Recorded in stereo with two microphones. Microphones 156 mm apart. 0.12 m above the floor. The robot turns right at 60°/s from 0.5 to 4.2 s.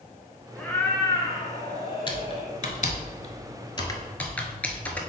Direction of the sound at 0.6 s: 10° left.